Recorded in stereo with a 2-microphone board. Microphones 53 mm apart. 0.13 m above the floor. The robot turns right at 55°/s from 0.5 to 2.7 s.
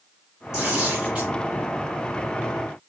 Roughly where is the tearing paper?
Centre.